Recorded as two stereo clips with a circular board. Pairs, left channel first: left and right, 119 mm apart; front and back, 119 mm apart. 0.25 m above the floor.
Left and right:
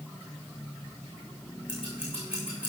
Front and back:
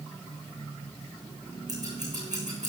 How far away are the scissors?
About 7.5 m.